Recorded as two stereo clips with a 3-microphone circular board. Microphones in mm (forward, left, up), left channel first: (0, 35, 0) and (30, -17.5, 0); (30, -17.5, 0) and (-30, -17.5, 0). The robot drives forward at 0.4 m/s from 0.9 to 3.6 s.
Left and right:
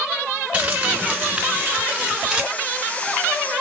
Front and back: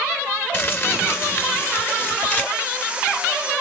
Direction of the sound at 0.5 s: 10° right.